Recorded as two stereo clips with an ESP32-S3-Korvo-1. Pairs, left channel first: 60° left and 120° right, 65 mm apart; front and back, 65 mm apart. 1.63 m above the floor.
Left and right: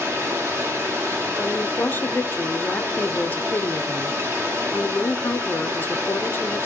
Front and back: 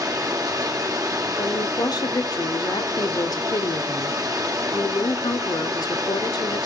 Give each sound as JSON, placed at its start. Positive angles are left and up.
{"t": 0.0, "sound": "running water", "azimuth_deg": -170, "distance_m": 2.0}
{"t": 1.4, "sound": "a woman speaking", "azimuth_deg": 0, "distance_m": 0.9}